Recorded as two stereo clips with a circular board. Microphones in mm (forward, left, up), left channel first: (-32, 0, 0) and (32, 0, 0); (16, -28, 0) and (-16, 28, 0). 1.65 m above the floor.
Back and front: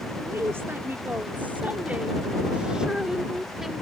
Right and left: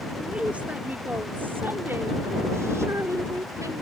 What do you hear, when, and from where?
0.2 s a woman speaking: 45° left; by 3.8 s 90° left